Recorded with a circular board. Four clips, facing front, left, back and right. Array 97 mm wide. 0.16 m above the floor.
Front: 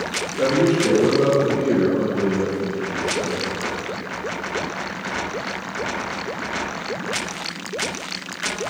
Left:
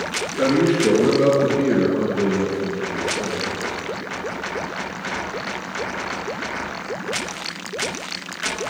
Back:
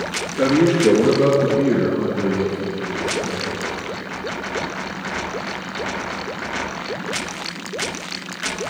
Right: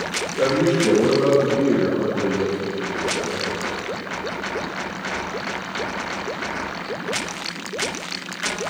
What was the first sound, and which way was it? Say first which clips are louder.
A man speaking: left 1 dB, back 2 dB; 140° left.